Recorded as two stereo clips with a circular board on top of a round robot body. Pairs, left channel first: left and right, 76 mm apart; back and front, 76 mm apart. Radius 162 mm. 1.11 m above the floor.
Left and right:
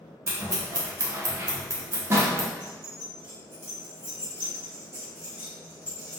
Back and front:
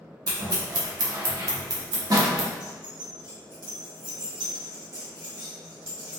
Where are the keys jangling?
30° right, 1.4 m.